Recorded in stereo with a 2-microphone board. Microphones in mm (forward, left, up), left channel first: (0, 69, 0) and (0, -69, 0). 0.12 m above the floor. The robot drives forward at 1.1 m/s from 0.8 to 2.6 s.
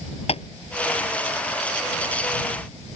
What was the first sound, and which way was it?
Tapping, 50° left (ahead or behind).